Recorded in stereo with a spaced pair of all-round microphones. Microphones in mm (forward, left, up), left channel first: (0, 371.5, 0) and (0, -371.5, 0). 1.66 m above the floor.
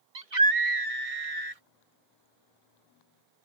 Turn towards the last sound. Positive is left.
turn(degrees=-90)